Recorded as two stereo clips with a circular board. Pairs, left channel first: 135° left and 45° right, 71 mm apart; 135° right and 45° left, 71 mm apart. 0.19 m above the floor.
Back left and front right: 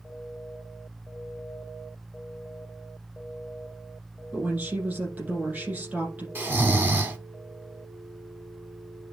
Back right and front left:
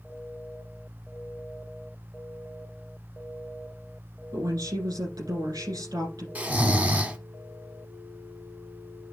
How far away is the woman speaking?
About 5 m.